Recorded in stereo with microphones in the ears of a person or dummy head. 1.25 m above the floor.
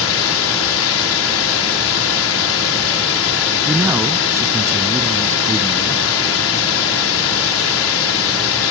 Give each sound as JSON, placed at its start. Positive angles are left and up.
{"t": 0.0, "sound": "a drone", "side_deg": 70}
{"t": 3.6, "sound": "a man speaking", "side_deg": -10}